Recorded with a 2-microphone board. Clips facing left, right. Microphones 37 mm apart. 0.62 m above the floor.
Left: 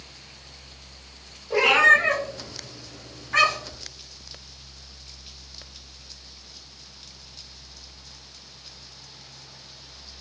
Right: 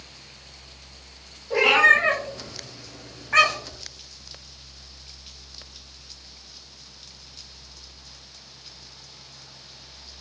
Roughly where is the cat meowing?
Centre.